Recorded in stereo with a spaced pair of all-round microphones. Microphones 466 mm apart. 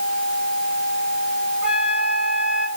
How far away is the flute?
About 3.5 m.